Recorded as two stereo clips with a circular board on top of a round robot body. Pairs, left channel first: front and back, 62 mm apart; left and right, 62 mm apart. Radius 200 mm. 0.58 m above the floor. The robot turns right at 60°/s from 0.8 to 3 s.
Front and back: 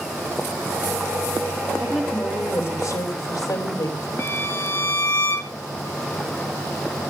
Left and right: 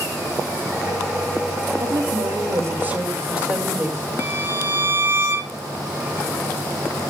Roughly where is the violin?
Ahead right.